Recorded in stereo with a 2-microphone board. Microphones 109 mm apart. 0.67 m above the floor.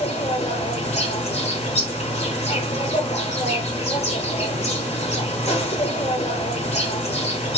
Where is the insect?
80° left, 1.4 m.